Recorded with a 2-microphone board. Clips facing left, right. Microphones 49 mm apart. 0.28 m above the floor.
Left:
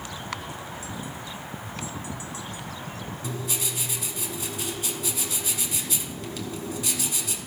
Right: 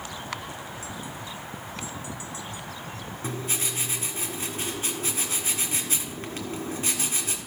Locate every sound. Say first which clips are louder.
3.2 s writing: right 2 dB; 35° right (ahead or behind), 1.5 m